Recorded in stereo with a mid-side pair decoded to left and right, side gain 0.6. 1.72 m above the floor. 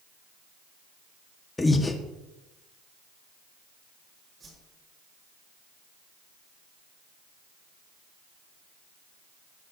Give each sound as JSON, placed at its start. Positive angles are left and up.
{"t": 1.6, "sound": "breathing", "azimuth_deg": 15, "distance_m": 1.6}
{"t": 4.4, "sound": "a whoosh", "azimuth_deg": -30, "distance_m": 4.5}